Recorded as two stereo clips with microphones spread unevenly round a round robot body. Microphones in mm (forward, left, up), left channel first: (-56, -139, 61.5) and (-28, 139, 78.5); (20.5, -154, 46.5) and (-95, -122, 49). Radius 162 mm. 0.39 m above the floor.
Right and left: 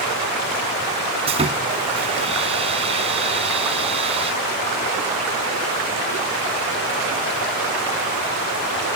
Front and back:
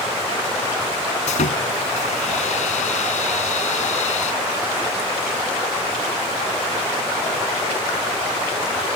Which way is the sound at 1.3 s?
15° left.